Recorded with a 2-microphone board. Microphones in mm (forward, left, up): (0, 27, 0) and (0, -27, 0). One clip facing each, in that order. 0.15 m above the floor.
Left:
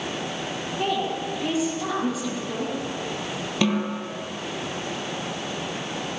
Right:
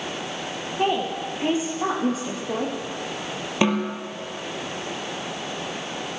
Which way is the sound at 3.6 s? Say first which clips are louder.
Right 2 dB; 25° right (ahead or behind).